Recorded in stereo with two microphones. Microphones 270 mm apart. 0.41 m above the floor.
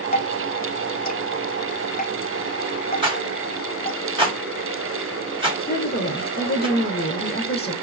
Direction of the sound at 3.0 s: 20° right (ahead or behind).